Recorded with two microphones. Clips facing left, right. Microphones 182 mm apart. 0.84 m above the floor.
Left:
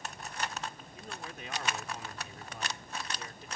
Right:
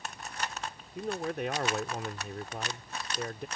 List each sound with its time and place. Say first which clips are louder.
0.9 s a man speaking: right 17 dB; 65° right (ahead or behind)